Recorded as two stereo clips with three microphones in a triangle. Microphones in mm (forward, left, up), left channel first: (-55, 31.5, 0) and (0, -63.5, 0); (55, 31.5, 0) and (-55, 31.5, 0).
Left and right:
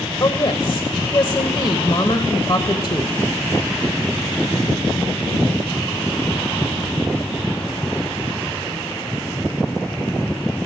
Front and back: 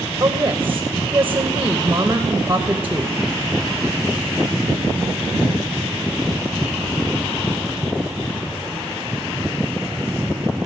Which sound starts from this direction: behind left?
A woman speaking, at 0.2 s.